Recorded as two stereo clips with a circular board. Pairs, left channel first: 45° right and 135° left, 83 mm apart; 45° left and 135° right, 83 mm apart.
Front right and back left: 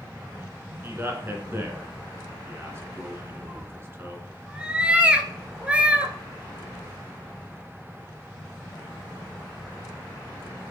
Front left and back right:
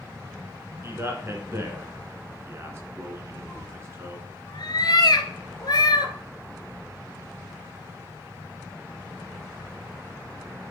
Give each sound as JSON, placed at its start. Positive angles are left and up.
{"t": 0.8, "sound": "a man speaking", "azimuth_deg": 180, "distance_m": 2.0}
{"t": 3.5, "sound": "a cat meowing", "azimuth_deg": 60, "distance_m": 1.0}